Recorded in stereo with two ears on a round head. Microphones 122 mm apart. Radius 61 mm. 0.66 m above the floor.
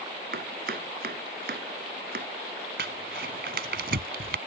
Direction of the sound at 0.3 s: 75° right (ahead or behind).